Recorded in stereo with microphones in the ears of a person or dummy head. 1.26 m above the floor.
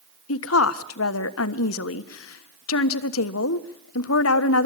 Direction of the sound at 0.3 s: 80° left.